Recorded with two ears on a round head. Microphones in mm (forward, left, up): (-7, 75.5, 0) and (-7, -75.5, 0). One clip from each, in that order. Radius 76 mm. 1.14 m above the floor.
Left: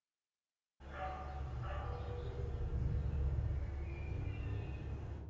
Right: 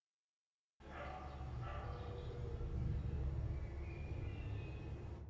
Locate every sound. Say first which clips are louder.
0.8 s a dog barking: left 5 dB; 35° right (ahead or behind), 1.6 m